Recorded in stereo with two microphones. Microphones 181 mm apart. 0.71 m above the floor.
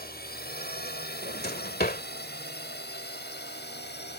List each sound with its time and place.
0.0 s a drone: 60° left (ahead or behind); by 4.2 s 70° left (ahead or behind)
1.2 s a drawer: 60° left (ahead or behind)